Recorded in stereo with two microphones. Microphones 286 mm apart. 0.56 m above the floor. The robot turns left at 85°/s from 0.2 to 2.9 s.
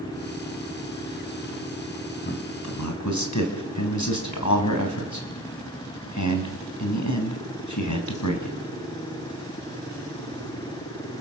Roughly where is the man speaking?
Left.